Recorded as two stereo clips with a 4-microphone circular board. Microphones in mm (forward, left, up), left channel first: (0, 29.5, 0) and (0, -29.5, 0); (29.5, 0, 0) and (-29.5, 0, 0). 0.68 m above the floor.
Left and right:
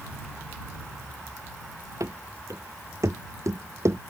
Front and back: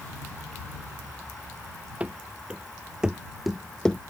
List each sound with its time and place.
2.0 s running footsteps: 115° right; by 4.0 s 70° right